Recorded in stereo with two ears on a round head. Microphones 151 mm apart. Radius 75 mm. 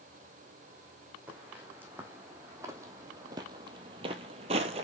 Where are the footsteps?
10° right (ahead or behind), 1.9 m; by 4.8 s 35° right (ahead or behind), 0.8 m.